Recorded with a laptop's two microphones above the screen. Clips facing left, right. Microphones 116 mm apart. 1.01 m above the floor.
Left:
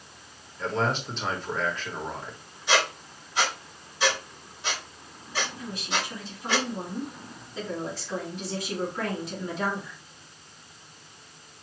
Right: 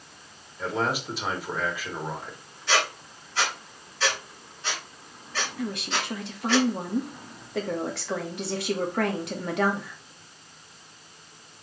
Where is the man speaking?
10° right (ahead or behind), 2.5 m.